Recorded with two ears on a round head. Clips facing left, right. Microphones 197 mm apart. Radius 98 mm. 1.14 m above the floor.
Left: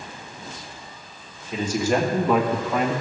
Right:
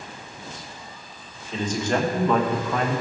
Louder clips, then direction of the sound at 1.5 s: Left 2 dB; 10° left (ahead or behind).